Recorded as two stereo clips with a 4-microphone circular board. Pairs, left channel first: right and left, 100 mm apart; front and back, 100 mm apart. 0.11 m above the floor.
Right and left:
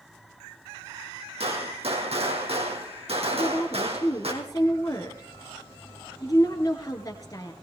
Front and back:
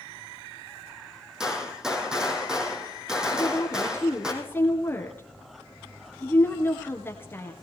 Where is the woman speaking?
55° right, 2 m.